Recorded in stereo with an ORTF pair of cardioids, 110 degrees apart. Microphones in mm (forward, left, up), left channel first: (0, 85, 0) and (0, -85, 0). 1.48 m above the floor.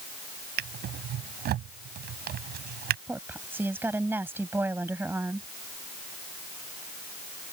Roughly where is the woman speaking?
Ahead.